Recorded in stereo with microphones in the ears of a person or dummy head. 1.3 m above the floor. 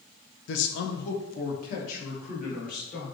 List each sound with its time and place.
0.5 s a man speaking: 60° left (ahead or behind), 0.7 m; by 3.1 s 40° left (ahead or behind), 2 m